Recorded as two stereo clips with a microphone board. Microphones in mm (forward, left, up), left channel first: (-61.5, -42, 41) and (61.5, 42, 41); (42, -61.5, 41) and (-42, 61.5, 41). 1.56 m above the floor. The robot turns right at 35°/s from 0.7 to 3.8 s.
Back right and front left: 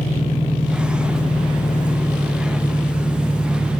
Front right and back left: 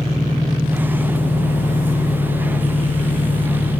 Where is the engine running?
155° right, 1.3 m; by 3.8 s 45° right, 1.3 m.